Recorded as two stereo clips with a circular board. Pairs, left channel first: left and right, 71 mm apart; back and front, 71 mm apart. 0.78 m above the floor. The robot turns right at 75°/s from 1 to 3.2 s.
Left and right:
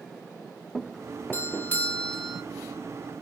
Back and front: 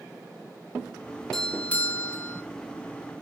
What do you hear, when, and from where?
1.3 s a doorbell: 100° left, 0.8 m; by 2.4 s 175° right, 0.8 m